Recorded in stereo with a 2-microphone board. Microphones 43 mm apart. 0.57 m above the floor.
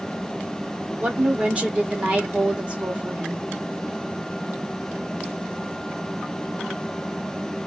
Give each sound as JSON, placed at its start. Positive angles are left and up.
{"t": 1.0, "sound": "a woman speaking", "side_deg": -30, "distance_m": 0.9}